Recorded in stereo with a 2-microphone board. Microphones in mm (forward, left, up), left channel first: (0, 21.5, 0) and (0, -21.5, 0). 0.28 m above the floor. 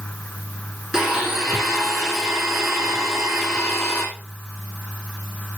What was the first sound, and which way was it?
A blender, 10° right (ahead or behind).